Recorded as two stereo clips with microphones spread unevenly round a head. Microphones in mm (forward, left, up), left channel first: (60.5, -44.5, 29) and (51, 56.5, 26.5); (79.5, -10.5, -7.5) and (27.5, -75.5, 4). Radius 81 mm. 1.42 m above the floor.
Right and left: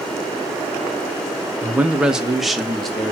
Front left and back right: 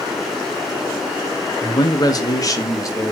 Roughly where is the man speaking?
Ahead left.